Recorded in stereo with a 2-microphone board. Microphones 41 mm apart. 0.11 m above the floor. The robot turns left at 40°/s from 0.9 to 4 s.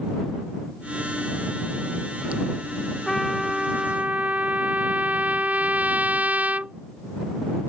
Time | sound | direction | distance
3.1 | a trumpet | straight ahead | ?